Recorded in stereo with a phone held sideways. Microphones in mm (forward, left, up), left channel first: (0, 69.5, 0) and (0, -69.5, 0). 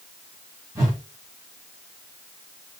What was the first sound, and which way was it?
A whoosh, 25° right (ahead or behind).